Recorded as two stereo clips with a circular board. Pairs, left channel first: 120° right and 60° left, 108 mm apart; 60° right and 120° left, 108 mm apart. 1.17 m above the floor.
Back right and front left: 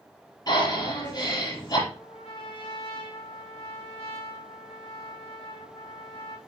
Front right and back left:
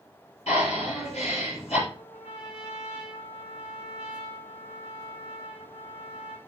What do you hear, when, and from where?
0.5 s breathing: 70° right, 8 m
1.9 s a trumpet: 90° right, 2.5 m